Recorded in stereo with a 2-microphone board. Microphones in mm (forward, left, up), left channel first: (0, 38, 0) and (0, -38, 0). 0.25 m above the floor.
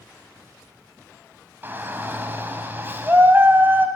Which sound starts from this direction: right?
A shout, at 1.6 s.